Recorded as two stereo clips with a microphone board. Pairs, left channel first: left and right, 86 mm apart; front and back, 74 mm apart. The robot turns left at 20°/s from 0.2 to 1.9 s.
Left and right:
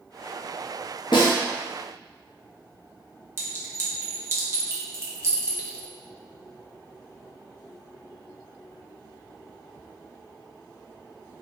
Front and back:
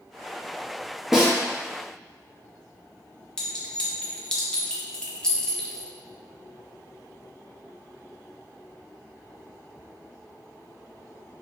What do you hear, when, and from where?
1.1 s a snare drum: 95° left, 0.8 m; by 1.3 s 90° left, 0.8 m
3.4 s a clink: 70° right, 0.8 m